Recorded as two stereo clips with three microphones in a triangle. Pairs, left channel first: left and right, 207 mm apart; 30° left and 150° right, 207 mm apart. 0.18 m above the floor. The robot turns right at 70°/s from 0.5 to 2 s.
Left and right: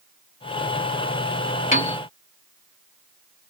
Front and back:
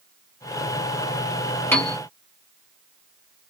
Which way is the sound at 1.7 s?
100° left.